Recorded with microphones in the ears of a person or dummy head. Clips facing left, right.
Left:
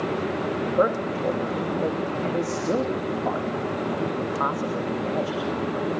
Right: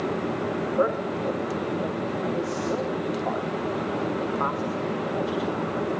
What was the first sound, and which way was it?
A man speaking, 45° left (ahead or behind).